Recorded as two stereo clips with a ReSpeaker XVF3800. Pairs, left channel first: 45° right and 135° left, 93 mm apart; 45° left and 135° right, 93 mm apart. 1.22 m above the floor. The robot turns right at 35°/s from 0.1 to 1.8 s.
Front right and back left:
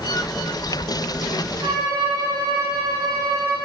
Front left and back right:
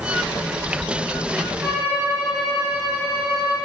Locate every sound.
1.6 s a violin: 175° left, 2.5 m; by 3.5 s straight behind, 2.5 m